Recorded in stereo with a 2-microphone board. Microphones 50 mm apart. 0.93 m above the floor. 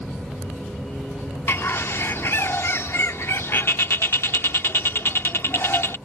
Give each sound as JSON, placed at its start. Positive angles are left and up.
{"t": 1.5, "sound": "a bird", "side_deg": 60}